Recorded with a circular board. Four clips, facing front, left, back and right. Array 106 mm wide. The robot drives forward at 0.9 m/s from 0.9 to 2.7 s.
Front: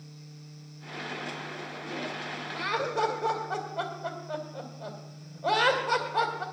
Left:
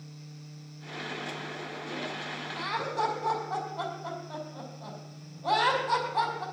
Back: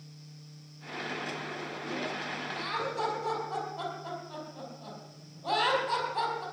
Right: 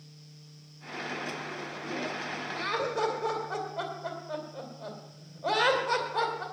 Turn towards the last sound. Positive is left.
turn(degrees=-45)